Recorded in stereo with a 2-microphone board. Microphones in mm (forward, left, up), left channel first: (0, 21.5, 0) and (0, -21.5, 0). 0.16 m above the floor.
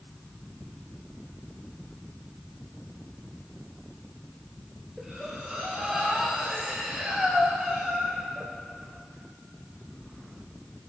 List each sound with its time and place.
5.0 s breathing: 15° right (ahead or behind), 2.0 m